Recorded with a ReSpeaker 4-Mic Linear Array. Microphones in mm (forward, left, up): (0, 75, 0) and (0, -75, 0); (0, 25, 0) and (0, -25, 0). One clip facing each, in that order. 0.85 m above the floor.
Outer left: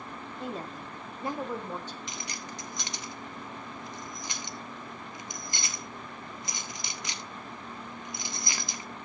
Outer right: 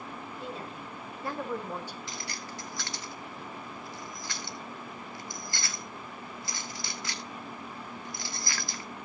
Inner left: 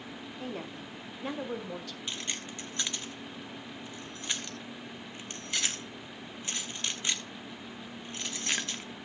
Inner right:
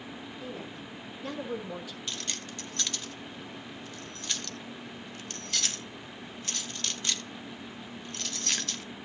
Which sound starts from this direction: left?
A woman speaking, at 0.4 s.